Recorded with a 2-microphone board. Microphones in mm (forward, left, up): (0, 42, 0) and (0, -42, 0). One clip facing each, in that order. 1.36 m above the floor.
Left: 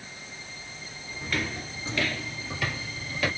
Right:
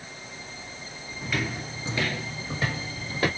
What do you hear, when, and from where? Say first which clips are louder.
1.2 s footsteps: right 1 dB; 5° right (ahead or behind), 1.4 m; by 3.3 s 40° right (ahead or behind), 2 m